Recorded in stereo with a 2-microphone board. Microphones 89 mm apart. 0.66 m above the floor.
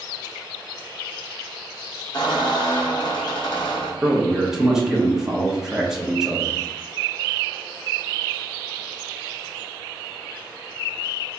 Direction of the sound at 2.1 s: 60° left (ahead or behind).